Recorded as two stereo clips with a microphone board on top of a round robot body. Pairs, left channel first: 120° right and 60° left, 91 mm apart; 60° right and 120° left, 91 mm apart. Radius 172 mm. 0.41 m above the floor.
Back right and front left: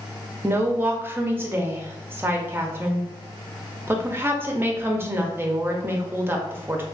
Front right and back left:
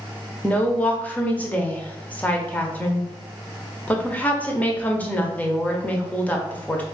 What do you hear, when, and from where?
0.4 s a woman speaking: 5° left, 0.9 m